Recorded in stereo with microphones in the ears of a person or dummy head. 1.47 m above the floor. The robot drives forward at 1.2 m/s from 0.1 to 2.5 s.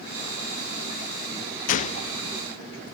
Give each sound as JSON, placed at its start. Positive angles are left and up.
{"t": 1.7, "sound": "a gunshot", "side_deg": 50, "distance_m": 0.7}